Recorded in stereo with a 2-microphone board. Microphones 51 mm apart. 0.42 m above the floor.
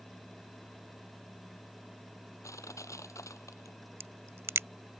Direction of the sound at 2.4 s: 85° left.